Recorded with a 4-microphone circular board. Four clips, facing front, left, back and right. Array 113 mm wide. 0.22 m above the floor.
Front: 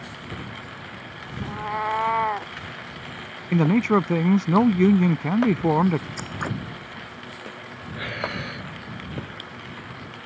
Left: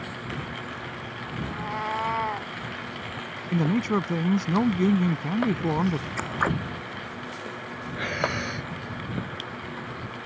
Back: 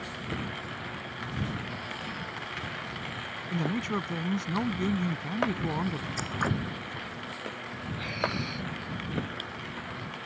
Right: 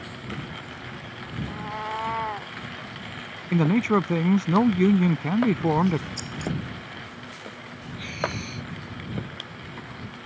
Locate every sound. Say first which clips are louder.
1.4 s a cat meowing: left 2 dB, front 10 dB; 5° left; by 2.5 s straight ahead
3.5 s a man speaking: right 3 dB, front 12 dB; 20° right
6.2 s scissors: left 6 dB, even; 90° left
8.0 s breathing: left 2 dB, front 2 dB; 60° left